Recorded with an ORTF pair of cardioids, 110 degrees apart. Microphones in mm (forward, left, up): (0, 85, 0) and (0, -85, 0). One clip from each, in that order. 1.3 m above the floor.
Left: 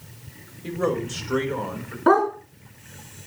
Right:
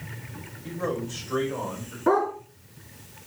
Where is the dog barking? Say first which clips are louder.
Left 4 dB; 40° left, 4 m.